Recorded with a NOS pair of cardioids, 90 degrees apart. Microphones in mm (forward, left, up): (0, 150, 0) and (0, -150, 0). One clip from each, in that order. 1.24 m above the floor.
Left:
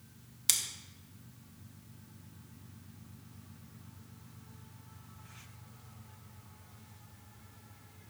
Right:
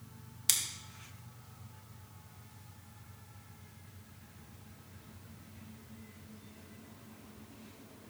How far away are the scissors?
About 1.1 m.